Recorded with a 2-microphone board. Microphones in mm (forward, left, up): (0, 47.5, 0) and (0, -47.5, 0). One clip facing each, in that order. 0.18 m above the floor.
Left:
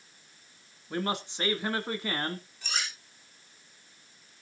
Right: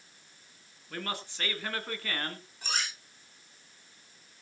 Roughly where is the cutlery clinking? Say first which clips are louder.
Right 3 dB; right.